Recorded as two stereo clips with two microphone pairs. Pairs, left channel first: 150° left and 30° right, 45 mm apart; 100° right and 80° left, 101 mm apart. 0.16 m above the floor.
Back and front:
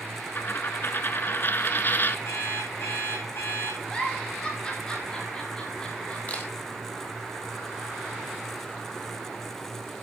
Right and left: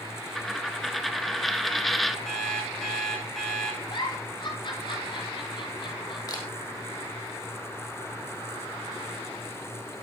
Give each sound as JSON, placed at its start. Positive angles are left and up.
{"t": 0.3, "sound": "a dropped coin", "azimuth_deg": 170, "distance_m": 1.0}
{"t": 2.2, "sound": "an alarm clock", "azimuth_deg": 170, "distance_m": 6.5}
{"t": 3.9, "sound": "a giggle", "azimuth_deg": -140, "distance_m": 7.5}
{"t": 6.3, "sound": "a camera shutter", "azimuth_deg": -155, "distance_m": 4.0}